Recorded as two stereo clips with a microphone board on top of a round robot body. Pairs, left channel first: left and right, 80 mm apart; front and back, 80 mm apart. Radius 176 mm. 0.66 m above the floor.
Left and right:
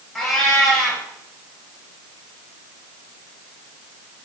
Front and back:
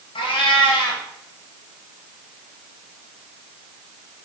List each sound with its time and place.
0.1 s a cat meowing: 5° left, 2.5 m